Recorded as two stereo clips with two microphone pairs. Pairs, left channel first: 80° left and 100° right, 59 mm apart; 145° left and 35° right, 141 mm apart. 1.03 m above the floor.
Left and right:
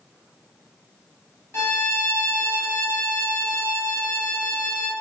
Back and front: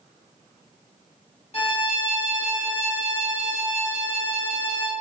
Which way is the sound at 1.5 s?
115° left.